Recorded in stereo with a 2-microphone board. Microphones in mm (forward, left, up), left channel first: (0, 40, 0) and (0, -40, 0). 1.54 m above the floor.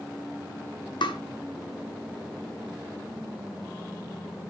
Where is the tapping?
80° left, 0.8 m.